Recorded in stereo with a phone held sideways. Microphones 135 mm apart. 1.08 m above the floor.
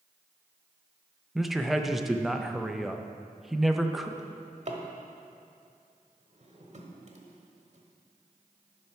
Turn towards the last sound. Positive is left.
turn(degrees=-50)  # may be behind; listen again after turning